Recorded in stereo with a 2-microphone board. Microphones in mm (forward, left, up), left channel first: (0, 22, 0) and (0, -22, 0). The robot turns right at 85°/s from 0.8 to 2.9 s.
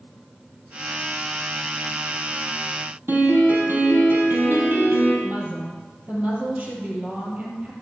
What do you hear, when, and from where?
3.1 s a piano: 60° right (ahead or behind), 3 m
5.2 s a woman speaking: 35° right (ahead or behind), 3 m